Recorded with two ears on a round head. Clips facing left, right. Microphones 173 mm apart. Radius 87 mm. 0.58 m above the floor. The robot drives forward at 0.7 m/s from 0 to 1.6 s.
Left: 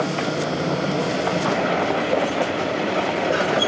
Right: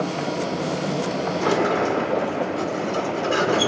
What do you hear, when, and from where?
1.4 s a sliding door: 60° right (ahead or behind), 1.6 m